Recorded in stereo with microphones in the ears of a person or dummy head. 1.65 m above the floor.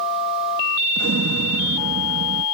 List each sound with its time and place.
1.0 s an explosion: 75° right (ahead or behind)